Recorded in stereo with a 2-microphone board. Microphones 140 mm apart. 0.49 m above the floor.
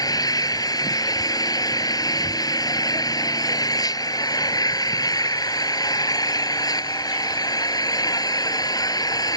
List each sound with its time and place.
0.0 s an engine running: 25° left (ahead or behind)